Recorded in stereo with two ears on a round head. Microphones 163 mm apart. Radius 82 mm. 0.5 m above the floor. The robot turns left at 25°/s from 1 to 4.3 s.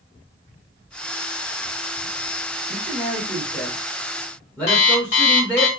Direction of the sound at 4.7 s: 35° left (ahead or behind).